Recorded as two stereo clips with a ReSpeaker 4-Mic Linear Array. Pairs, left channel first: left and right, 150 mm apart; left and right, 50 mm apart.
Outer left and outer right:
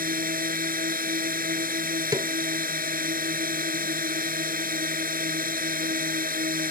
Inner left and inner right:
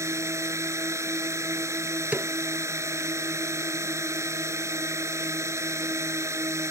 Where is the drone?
70° right (ahead or behind).